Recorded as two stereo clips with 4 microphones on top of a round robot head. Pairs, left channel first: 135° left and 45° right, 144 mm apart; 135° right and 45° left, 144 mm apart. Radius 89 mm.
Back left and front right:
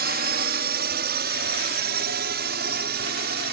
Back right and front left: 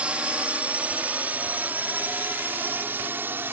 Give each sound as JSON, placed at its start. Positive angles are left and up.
{"t": 0.0, "sound": "a drone", "azimuth_deg": -35}